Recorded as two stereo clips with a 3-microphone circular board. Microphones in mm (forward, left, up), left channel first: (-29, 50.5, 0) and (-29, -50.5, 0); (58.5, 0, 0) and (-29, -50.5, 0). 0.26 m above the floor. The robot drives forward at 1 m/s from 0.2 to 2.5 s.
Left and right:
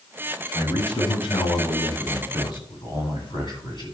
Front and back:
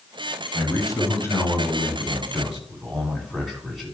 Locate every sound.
0.5 s a man speaking: 65° left, 2.5 m; by 3.9 s 125° left, 2.5 m